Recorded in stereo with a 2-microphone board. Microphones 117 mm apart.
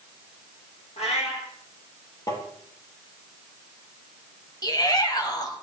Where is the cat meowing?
65° left (ahead or behind), 3 m.